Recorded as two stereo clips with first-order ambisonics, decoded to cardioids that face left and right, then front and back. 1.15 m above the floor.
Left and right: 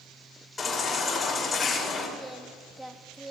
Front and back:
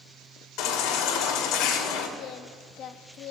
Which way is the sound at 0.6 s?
20° left.